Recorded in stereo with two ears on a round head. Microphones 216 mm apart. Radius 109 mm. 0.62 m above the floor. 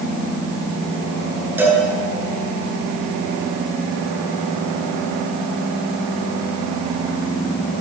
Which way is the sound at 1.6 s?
10° right (ahead or behind).